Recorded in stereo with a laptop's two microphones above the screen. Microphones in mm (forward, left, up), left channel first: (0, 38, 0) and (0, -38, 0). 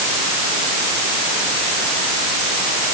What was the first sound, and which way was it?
Only background noise.